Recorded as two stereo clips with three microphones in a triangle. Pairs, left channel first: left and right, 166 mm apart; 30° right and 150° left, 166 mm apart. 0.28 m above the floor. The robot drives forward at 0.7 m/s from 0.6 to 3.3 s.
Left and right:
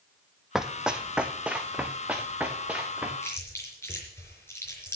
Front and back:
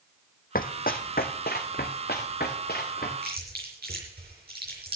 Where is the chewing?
165° left, 5 m.